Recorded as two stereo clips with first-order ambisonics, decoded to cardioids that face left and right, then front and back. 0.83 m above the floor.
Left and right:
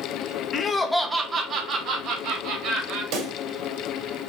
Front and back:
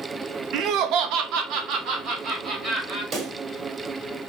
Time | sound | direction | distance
0.5 | laughter | 145° left | 0.6 m
3.1 | a pop | 120° right | 1.4 m